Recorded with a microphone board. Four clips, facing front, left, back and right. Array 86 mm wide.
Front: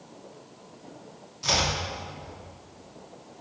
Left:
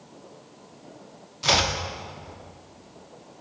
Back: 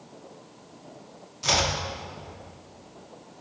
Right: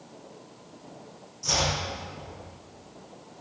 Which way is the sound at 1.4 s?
100° left.